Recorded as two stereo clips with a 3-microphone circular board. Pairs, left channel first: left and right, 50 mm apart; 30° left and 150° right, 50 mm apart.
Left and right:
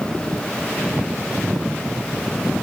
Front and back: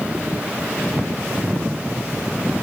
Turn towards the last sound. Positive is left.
No sound to turn to.